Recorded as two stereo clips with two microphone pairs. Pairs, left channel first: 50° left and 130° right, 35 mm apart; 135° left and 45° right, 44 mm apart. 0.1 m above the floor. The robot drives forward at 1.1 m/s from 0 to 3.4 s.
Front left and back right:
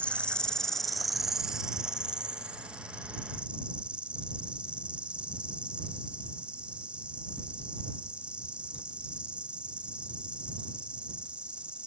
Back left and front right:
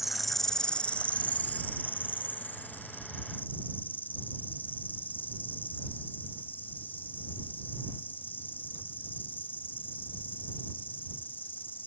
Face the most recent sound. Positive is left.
turn(degrees=175)